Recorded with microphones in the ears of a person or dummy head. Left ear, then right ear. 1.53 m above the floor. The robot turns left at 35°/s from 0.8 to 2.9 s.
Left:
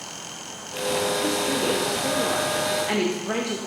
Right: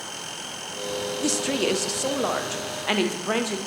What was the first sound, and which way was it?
A woman speaking, 90° right.